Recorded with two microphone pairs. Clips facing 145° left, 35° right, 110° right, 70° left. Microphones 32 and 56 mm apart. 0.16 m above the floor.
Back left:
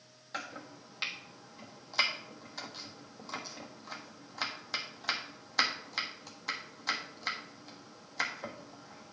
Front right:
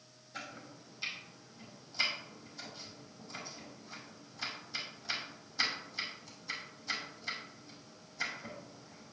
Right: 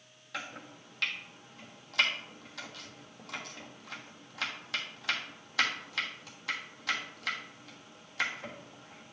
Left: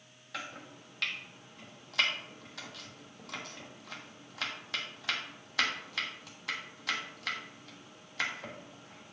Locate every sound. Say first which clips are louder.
0.3 s chopping: back left 4 dB, right 1 dB; 160° left, 1.3 m